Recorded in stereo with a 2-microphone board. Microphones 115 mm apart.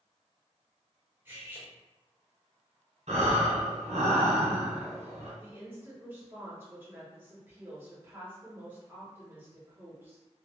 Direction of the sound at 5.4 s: 20° right (ahead or behind).